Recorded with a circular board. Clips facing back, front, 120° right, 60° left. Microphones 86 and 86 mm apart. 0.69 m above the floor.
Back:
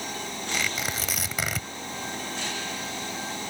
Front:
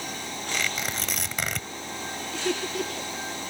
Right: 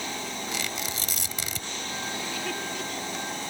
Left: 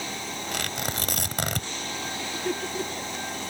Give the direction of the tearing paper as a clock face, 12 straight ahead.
9 o'clock.